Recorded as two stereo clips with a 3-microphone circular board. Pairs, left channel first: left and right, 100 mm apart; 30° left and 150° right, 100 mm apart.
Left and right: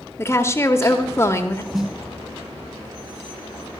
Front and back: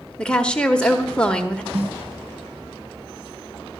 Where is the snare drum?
Straight behind, 1.7 m.